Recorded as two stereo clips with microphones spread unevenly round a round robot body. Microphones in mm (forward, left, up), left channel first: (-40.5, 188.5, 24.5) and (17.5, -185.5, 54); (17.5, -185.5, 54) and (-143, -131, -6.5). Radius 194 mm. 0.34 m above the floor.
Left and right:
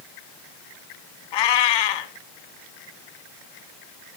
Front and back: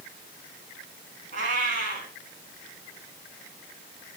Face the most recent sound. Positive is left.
turn(degrees=115)